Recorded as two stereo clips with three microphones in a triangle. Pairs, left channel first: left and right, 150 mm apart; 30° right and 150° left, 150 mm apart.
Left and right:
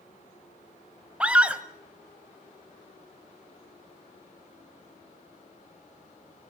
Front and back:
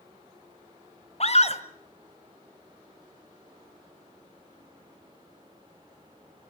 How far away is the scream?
About 2 m.